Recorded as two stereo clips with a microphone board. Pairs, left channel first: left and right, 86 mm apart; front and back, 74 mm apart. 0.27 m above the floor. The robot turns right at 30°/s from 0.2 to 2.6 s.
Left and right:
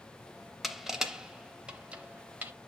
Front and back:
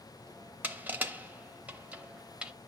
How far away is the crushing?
About 0.6 m.